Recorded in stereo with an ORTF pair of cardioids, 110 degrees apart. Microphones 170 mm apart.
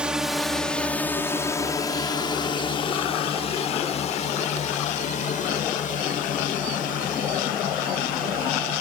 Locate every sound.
0.0 s a drone: 5° right; by 8.8 s 60° left